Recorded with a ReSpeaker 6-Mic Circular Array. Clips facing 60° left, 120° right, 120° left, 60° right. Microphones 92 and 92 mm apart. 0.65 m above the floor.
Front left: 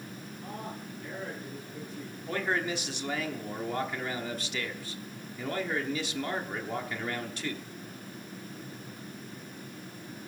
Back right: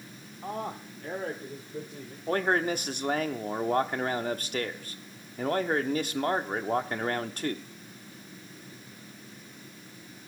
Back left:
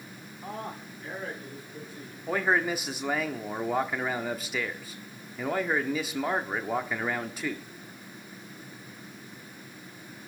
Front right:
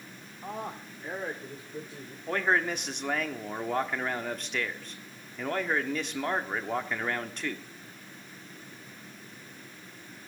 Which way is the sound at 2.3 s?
155° right.